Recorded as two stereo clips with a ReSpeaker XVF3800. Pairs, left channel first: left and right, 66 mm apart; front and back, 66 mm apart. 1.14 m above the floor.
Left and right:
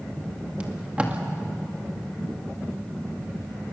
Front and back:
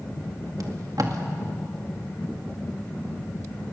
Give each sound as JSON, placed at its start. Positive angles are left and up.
{"t": 0.6, "sound": "tape being pulled", "azimuth_deg": -160, "distance_m": 2.0}